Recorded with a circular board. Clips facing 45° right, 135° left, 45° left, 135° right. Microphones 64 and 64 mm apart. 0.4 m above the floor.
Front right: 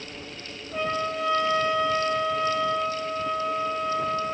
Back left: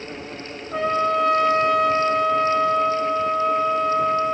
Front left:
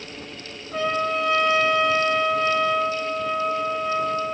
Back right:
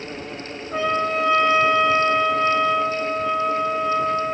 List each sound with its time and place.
0.7 s a trumpet: 160° left, 1.4 m